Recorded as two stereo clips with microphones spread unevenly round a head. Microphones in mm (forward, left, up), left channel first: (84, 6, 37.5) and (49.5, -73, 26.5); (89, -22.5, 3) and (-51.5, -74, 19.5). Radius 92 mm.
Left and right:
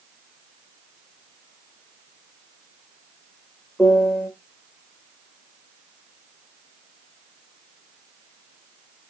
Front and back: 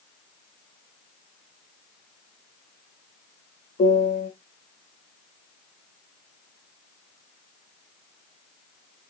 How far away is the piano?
About 0.9 m.